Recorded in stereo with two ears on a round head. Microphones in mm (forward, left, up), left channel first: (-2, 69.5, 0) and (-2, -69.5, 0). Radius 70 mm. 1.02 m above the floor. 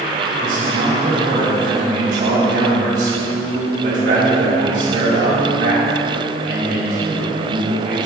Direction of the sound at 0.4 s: 70° right (ahead or behind).